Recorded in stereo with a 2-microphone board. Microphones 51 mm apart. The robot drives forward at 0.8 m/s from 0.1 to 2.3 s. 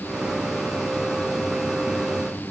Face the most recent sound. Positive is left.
No sound to turn to.